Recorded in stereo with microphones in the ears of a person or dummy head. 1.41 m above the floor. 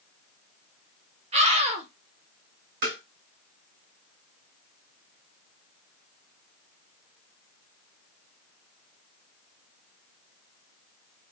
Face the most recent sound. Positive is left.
turn(degrees=-50)  # may be behind; listen again after turning